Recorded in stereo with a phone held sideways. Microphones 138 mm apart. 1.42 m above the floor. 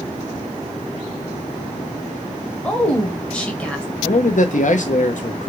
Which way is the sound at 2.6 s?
10° left (ahead or behind).